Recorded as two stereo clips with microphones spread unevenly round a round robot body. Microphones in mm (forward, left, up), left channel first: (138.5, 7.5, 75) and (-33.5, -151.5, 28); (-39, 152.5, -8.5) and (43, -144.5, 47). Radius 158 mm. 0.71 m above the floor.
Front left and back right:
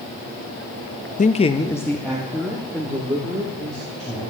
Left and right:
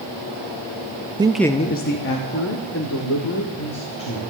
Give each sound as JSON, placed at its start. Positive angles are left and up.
{"t": 1.2, "sound": "a man speaking", "azimuth_deg": 5, "distance_m": 0.6}